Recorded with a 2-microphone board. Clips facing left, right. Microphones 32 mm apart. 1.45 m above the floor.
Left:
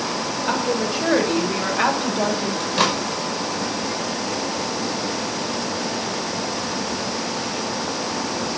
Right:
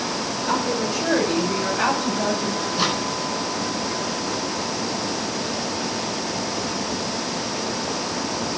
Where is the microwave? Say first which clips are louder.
Left 2 dB; 85° left, 6 m.